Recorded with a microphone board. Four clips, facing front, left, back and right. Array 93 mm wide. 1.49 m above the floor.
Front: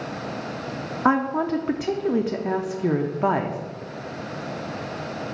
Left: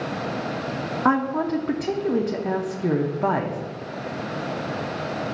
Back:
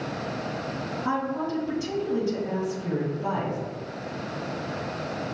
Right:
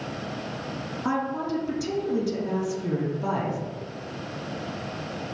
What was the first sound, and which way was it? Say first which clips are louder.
A woman speaking: left 6 dB, front 8 dB; 35° left.